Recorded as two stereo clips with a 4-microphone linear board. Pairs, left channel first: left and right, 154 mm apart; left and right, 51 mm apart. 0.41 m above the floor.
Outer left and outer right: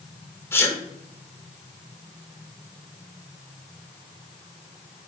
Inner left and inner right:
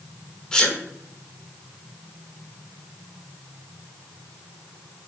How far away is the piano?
I don't hear a piano.